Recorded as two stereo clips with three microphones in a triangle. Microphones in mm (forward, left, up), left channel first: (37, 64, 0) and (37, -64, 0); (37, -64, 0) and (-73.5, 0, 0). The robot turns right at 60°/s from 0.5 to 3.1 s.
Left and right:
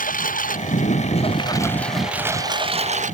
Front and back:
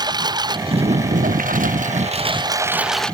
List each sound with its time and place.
0.0 s a lawn mower: 90° left; by 3.1 s 115° right